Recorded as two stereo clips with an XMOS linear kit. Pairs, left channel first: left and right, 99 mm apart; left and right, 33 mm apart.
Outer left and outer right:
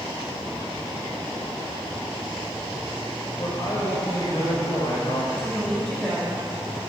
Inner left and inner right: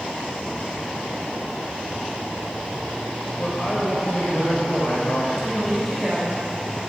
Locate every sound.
3.4 s a man speaking: 45° left (ahead or behind), 5 m
5.3 s a woman speaking: 10° left (ahead or behind), 6 m